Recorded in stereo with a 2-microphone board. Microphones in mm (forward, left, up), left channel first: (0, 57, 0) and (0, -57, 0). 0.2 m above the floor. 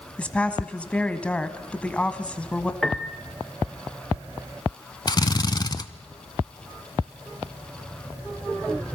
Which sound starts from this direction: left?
A drill, at 5.1 s.